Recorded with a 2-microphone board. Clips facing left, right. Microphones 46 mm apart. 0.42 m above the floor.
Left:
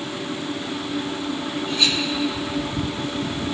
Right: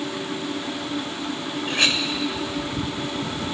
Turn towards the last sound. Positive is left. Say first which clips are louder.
# right 1 dB
turn(degrees=-55)  # may be behind; listen again after turning